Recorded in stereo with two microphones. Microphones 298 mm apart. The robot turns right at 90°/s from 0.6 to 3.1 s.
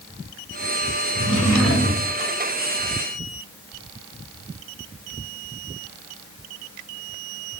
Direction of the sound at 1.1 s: 85° left.